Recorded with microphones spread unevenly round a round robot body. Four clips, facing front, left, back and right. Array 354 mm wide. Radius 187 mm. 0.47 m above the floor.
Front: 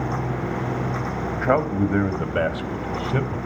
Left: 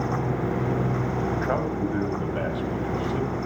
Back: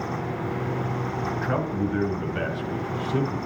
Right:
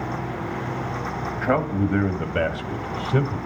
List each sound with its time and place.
1.4 s a man speaking: 25° right, 2.5 m; by 3.4 s 60° right, 2.5 m